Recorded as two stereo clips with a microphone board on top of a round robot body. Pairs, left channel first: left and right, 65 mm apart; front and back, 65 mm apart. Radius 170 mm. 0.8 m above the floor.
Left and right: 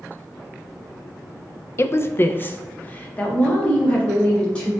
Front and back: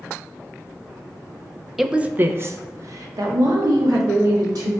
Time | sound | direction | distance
1.8 | a woman speaking | 95° left | 0.6 m